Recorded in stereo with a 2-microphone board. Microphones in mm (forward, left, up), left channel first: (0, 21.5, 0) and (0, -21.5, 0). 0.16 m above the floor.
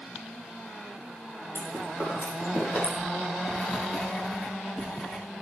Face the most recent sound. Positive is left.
turn(degrees=40)  # may be behind; listen again after turning